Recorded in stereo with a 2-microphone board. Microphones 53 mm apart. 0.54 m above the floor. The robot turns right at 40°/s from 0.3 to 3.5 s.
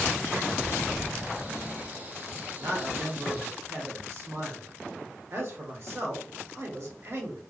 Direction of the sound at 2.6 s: 115° right.